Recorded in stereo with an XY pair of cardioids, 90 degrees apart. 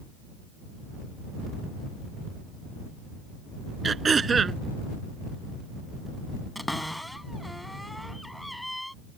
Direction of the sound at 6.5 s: 5° left.